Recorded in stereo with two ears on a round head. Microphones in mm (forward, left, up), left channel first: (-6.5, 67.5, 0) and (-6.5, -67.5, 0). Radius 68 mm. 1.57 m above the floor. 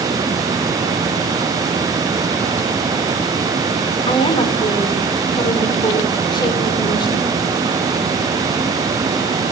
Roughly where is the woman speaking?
Left.